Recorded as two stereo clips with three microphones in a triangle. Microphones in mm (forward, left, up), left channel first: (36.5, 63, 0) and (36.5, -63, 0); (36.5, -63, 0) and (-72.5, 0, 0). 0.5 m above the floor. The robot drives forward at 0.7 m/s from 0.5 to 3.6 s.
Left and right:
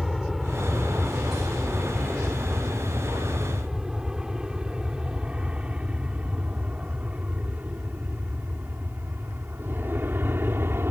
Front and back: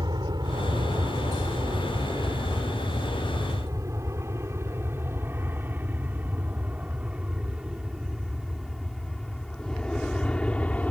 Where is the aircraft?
Straight behind; by 10.9 s 80° right.